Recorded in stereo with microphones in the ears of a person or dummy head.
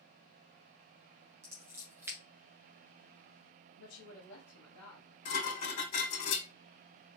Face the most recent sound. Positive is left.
turn(degrees=75)  # may be behind; listen again after turning